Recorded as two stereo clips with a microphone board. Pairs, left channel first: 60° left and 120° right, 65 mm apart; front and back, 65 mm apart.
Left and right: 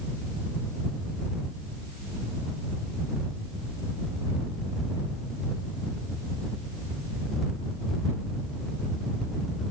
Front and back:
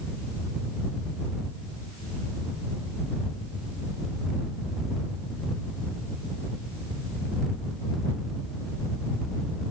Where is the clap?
No clap in this recording.